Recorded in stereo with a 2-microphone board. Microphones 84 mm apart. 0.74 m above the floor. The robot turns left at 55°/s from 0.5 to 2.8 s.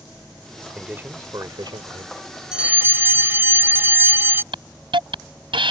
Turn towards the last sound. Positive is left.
turn(degrees=-85)